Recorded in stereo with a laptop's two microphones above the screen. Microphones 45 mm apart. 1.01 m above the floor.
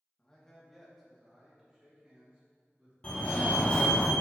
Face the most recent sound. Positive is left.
turn(degrees=25)  # may be behind; listen again after turning